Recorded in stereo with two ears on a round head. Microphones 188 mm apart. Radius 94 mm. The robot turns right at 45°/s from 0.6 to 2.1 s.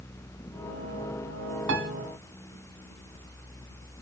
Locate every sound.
1.7 s a piano: 65° right (ahead or behind), 3 m; by 1.9 s 60° right (ahead or behind), 3 m